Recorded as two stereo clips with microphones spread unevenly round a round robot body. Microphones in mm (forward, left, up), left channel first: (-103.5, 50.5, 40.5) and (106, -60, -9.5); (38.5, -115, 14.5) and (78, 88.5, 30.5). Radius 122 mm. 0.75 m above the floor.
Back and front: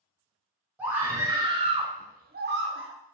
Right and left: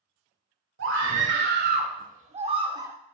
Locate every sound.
0.8 s a scream: 55° left, 2.5 m; by 2.9 s straight ahead, 1.8 m